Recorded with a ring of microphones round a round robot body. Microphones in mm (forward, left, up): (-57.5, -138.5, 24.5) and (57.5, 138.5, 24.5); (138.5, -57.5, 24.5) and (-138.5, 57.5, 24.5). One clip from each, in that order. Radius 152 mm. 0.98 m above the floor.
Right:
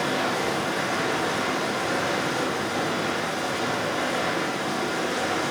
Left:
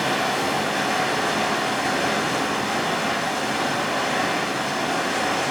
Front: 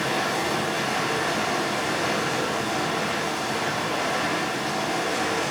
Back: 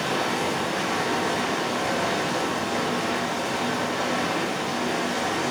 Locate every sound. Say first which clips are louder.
0.0 s running water: left 3 dB, even; 50° left, 5 m